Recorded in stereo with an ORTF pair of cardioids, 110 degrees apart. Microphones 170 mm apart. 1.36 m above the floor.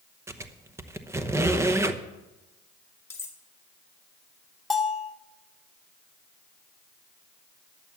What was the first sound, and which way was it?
A squeak, 15° right.